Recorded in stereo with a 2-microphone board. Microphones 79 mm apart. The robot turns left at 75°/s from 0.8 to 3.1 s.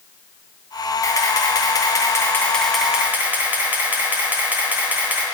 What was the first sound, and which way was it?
A camera shutter, 130° left.